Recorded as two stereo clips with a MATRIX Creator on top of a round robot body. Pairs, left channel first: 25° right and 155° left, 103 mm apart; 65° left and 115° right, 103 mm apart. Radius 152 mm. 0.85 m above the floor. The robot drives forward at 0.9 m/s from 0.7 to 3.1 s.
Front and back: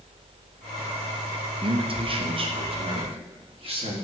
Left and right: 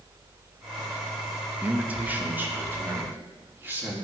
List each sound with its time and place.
1.6 s a man speaking: 175° left, 1.1 m